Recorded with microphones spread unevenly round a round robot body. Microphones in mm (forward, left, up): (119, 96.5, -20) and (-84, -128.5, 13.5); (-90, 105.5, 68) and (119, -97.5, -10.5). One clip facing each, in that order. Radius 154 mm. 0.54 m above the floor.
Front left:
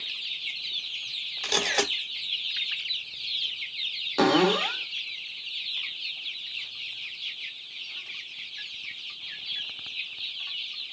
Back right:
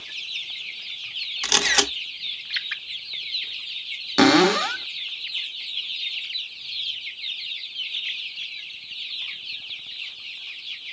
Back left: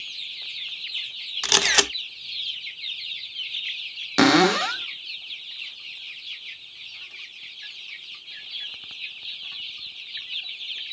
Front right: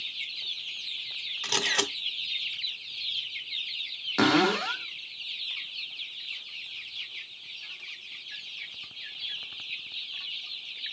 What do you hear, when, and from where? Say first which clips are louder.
1.4 s a camera shutter: back right 1 dB, back left 5 dB; 165° left, 0.9 m
4.2 s a cupboard door: back right 5 dB, back left 6 dB; 175° left, 0.7 m